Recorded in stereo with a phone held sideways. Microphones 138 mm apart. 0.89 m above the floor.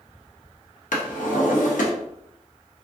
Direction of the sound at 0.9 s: 85° left.